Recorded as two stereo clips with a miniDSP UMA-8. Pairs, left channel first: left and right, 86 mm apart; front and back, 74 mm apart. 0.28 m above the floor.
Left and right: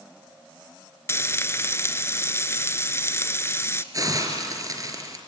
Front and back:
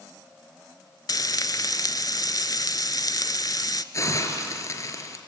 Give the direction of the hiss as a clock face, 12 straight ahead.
1 o'clock.